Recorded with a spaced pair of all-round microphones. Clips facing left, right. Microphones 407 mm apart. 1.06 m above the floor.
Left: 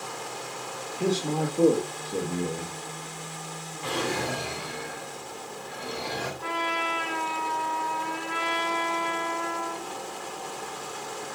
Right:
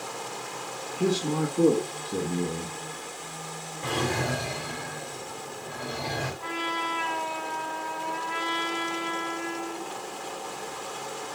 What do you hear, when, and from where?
1.0 s a man speaking: 25° right (ahead or behind), 1.4 m
3.8 s a drawer: 60° right (ahead or behind), 3 m
6.4 s a trumpet: 25° left (ahead or behind), 3.5 m